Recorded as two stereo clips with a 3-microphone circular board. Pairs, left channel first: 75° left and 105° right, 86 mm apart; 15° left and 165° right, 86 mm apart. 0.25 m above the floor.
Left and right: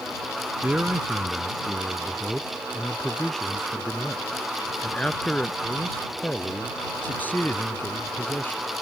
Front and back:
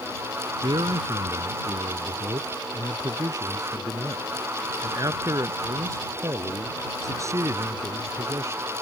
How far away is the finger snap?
No finger snap in this recording.